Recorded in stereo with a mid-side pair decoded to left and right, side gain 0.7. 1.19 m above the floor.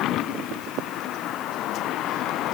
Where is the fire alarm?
I don't hear a fire alarm.